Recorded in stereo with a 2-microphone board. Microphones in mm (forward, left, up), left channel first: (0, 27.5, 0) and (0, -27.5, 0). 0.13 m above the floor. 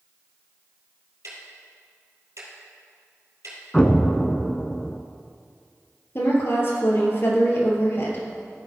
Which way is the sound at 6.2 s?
45° left (ahead or behind).